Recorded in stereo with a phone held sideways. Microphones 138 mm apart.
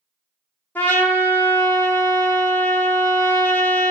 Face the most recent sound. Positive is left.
turn(degrees=15)  # may be behind; listen again after turning